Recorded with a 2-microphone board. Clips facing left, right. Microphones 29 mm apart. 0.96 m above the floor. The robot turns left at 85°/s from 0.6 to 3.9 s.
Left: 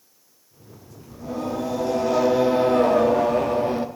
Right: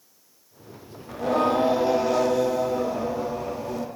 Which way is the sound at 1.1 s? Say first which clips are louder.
Right 7 dB; 95° right.